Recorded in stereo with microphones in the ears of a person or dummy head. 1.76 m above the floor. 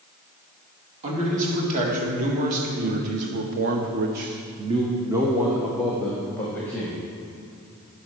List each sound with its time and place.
1.0 s a man speaking: 45° right (ahead or behind), 2.5 m; by 7.0 s 10° left (ahead or behind), 1.9 m